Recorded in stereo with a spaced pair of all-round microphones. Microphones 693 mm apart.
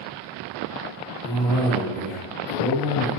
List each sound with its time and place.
1.2 s a cough: centre (ahead or behind), 0.7 m